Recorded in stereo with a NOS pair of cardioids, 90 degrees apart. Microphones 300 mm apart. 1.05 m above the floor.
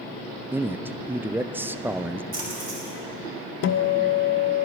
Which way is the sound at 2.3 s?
30° right.